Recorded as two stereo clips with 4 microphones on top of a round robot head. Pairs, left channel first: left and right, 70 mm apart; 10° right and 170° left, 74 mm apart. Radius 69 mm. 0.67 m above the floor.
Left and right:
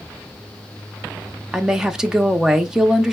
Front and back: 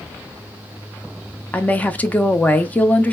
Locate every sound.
1.5 s a woman speaking: 20° right, 0.7 m